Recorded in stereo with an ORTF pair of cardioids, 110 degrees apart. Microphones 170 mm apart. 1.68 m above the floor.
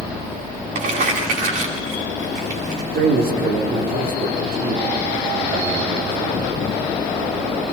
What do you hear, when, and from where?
0.8 s crumpling: 50° right, 9 m
2.9 s a man speaking: 60° right, 6 m